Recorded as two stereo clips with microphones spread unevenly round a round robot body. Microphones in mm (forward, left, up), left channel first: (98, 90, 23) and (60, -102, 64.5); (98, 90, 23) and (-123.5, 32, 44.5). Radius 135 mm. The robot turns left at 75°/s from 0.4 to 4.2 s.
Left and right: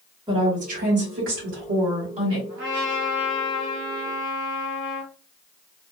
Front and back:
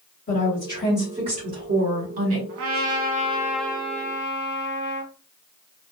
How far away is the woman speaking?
About 1.8 m.